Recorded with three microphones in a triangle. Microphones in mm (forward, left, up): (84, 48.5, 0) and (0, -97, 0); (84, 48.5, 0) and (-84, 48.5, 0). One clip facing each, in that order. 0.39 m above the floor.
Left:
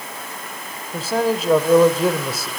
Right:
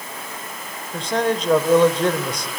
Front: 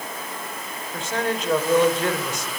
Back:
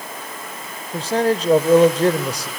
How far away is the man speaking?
About 1.2 m.